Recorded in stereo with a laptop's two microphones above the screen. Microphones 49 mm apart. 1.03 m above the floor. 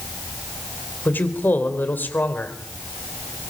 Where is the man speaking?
45° left (ahead or behind), 3.5 m.